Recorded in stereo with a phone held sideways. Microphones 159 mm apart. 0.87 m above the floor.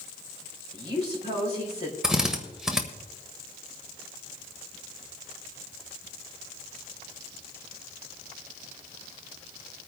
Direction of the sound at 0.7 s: 45° left (ahead or behind).